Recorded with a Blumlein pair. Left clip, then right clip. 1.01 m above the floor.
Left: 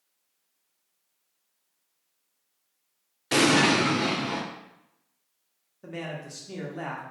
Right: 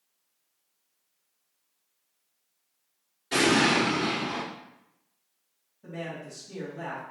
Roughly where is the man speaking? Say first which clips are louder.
Left 1 dB; ahead left.